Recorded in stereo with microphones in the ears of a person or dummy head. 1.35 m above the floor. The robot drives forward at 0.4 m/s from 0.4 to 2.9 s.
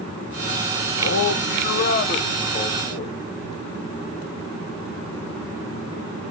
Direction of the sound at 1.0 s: 70° left (ahead or behind).